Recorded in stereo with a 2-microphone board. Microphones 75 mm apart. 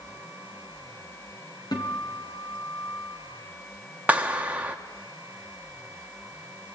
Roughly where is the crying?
I don't hear crying.